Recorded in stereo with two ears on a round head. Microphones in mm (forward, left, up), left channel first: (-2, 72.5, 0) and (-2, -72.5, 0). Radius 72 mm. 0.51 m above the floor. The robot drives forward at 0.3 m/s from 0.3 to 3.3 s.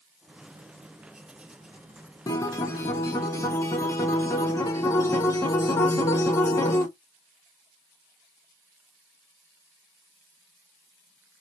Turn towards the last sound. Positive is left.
turn(degrees=20)  # may be behind; listen again after turning